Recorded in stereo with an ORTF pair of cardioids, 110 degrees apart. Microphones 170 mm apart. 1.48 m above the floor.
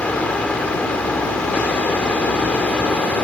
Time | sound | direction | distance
0.0 | a fan | 5° left | ?